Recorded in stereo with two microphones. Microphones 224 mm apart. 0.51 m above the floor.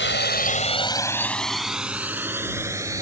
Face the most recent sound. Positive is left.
turn(degrees=-15)  # may be behind; listen again after turning